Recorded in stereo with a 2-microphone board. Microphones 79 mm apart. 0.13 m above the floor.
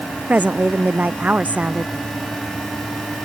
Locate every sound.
0.3 s a woman speaking: 20° right (ahead or behind)